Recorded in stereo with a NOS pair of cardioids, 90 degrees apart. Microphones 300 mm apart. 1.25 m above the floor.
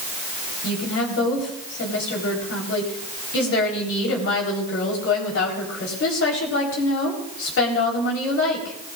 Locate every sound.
0.6 s a woman speaking: 45° left, 4 m